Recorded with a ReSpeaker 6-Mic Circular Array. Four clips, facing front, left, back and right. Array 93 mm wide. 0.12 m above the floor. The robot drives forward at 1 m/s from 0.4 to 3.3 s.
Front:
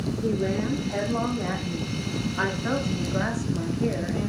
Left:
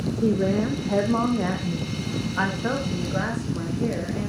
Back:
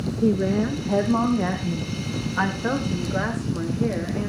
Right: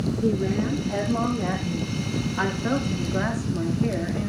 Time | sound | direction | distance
0.2 | a woman speaking | 130° left | 4 m